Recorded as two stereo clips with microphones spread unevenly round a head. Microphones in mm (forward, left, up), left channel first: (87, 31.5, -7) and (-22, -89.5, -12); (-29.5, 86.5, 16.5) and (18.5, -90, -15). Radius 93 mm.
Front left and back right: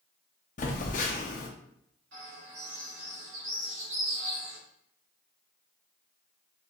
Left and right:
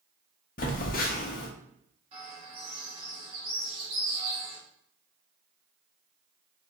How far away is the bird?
About 2 m.